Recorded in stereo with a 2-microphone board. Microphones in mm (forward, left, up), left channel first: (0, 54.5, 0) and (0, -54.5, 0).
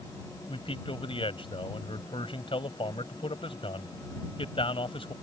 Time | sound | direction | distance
0.5 | a man speaking | 55° left (ahead or behind) | ?